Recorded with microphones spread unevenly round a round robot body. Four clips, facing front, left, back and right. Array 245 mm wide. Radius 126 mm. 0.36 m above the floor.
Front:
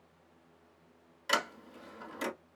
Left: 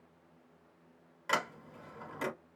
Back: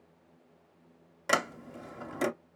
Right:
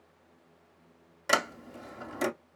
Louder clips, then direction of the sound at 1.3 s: Right 6 dB, back 4 dB; 145° right.